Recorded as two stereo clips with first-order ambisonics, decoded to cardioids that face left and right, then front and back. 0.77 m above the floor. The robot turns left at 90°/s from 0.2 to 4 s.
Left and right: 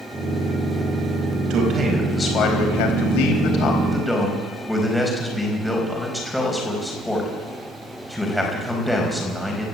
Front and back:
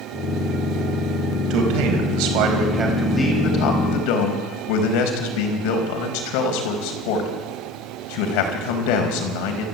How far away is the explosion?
No explosion in this recording.